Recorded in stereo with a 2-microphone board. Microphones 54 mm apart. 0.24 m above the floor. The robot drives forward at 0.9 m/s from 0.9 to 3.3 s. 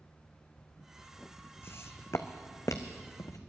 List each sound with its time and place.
1.6 s footsteps: 50° left (ahead or behind), 0.9 m; by 3.4 s 80° left, 1.2 m